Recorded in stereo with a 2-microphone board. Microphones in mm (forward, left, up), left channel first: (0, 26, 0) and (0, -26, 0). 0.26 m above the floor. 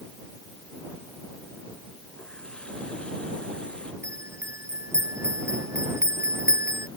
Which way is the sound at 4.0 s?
65° right (ahead or behind).